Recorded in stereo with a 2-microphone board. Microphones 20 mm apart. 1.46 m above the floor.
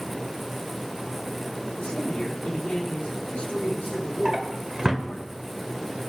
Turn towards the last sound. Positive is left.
turn(degrees=-30)  # may be behind; listen again after turning